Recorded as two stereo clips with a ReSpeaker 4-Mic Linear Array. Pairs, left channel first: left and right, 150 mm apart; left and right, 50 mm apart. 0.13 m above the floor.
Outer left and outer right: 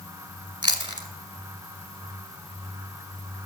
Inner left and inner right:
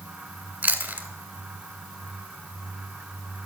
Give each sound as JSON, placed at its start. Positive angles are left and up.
{"t": 0.6, "sound": "chewing", "side_deg": -30, "distance_m": 1.2}